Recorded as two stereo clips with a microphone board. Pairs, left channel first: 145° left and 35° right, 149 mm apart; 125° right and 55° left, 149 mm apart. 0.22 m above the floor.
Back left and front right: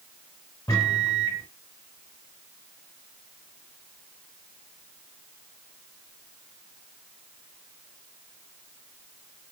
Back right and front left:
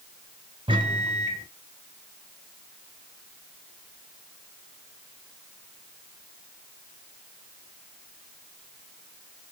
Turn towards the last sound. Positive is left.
turn(degrees=90)